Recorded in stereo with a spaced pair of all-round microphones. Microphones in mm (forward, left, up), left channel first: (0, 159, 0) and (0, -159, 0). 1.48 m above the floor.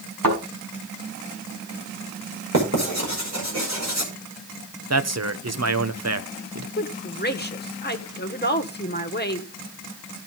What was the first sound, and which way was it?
A thud, 65° right (ahead or behind).